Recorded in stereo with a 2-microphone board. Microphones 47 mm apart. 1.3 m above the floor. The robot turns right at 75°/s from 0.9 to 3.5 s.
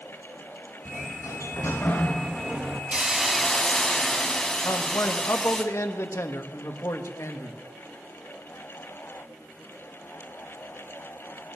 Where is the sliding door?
60° left, 1.3 m; by 2.8 s 155° right, 1.3 m.